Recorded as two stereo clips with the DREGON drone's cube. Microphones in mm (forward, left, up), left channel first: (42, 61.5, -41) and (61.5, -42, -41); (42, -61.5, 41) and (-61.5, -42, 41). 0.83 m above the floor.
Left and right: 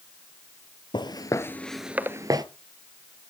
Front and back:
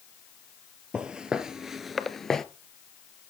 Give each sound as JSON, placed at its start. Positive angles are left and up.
{"t": 0.9, "sound": "footsteps", "azimuth_deg": 95, "distance_m": 1.1}